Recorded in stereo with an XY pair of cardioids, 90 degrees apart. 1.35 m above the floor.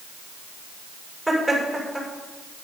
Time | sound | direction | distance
1.3 | laughter | 5° right | 7 m